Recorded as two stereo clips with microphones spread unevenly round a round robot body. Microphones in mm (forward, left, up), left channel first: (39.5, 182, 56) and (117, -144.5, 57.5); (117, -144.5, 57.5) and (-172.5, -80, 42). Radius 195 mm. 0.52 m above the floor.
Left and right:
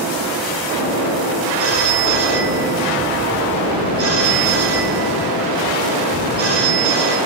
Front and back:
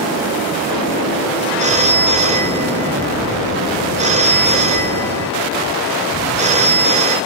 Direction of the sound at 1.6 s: 125° right.